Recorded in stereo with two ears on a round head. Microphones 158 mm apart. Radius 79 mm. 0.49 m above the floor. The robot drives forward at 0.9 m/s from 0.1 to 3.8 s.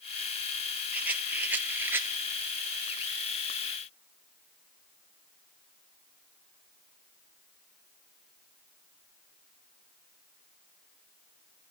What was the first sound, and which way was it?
A rattle, 10° right (ahead or behind).